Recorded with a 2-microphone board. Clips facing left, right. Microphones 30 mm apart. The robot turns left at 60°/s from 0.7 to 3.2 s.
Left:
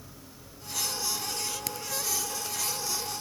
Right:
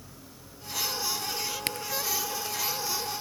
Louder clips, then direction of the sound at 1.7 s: Right 4 dB; 45° right (ahead or behind).